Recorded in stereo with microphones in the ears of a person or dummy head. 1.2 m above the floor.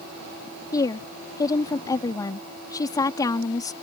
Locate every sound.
0.7 s a woman speaking: 15° left (ahead or behind)